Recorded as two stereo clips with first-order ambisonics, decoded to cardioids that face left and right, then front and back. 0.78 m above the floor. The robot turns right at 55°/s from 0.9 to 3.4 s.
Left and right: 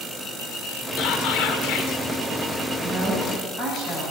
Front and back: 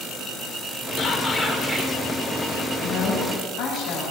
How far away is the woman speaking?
About 5 m.